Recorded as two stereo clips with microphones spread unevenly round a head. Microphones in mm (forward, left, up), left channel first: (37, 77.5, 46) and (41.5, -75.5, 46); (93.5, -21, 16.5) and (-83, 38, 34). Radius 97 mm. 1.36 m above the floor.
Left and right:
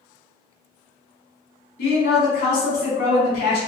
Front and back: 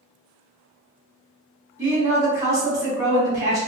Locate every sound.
1.8 s a woman speaking: 85° left, 1.5 m